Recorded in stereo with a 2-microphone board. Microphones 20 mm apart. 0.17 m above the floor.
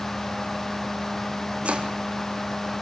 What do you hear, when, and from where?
1.6 s chopping: 75° right (ahead or behind), 2.5 m